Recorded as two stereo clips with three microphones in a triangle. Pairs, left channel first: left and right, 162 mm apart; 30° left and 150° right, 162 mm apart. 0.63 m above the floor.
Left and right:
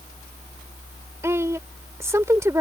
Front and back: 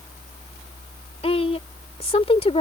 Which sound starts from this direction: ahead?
A woman speaking, at 1.2 s.